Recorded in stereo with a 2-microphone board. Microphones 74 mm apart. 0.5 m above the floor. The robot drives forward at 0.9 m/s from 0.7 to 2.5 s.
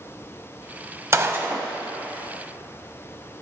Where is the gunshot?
40° right (ahead or behind), 0.5 m; by 1.7 s 20° right (ahead or behind), 1.0 m.